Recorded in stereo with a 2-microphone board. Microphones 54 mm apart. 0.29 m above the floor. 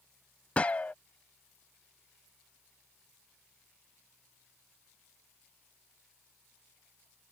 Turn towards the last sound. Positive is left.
turn(degrees=25)  # may be behind; listen again after turning